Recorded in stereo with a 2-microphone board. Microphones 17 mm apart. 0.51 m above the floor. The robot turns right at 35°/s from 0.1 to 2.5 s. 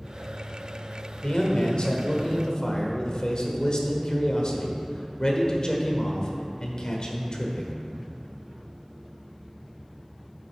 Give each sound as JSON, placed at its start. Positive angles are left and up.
{"t": 1.2, "sound": "a man speaking", "azimuth_deg": 80, "distance_m": 1.3}